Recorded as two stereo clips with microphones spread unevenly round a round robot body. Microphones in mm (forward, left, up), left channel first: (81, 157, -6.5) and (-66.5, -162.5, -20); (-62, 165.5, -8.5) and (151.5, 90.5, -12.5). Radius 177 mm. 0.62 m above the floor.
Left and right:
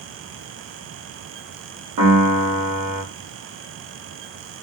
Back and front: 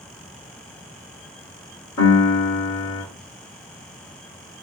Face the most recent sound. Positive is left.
turn(degrees=-150)